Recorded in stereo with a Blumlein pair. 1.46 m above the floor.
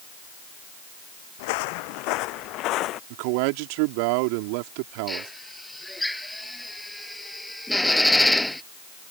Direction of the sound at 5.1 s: 5° left.